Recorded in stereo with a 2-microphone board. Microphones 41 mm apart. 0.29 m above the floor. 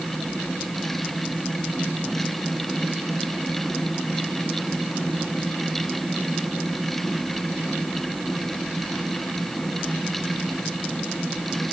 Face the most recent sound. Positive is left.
No sound to turn to.